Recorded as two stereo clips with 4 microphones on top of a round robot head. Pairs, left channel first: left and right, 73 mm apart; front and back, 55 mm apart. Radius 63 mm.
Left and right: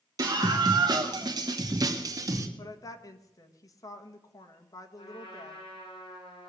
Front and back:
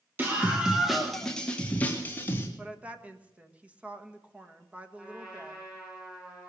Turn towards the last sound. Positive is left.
turn(degrees=110)